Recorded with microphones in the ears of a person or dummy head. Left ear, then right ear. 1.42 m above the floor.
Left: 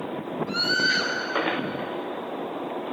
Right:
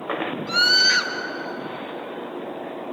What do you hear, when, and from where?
0.5 s a scream: 50° right (ahead or behind), 2 m